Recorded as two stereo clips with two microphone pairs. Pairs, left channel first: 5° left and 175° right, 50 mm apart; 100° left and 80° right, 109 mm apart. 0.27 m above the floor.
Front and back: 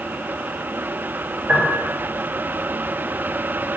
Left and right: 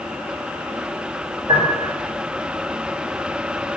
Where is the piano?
115° right, 4 m.